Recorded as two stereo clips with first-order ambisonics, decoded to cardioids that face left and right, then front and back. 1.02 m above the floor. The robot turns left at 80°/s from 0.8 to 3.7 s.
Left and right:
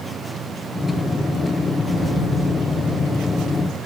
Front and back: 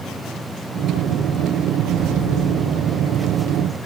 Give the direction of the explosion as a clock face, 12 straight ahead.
4 o'clock.